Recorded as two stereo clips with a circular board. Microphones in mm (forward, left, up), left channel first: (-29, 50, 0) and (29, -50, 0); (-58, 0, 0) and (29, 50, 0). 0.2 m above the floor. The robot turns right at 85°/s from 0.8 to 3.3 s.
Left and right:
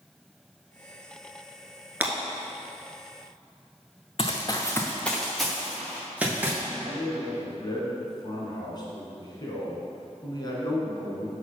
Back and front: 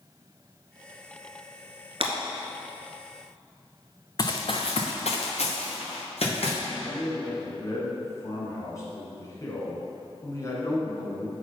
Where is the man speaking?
160° left, 1.8 m.